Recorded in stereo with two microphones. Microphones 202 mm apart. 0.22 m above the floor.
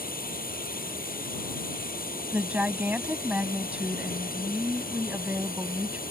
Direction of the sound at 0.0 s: 45° left (ahead or behind).